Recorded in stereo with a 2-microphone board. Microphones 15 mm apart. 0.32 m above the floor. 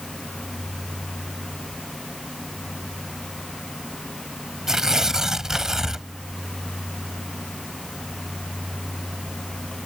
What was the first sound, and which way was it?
Tearing paper, 40° right (ahead or behind).